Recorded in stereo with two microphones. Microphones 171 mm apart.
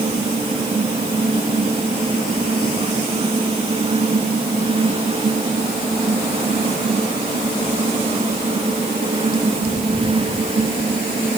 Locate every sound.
Only background noise.